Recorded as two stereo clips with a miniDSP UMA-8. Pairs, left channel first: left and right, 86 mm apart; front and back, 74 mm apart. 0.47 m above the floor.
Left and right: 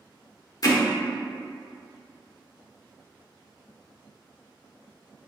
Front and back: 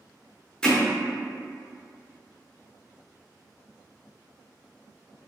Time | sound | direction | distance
0.6 | hammering | 80° left | 0.5 m